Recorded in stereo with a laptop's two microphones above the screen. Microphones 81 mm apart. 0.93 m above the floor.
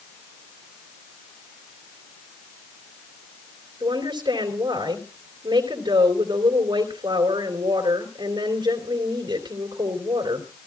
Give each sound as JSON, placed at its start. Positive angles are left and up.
{"t": 3.8, "sound": "a woman speaking", "side_deg": -80, "distance_m": 3.5}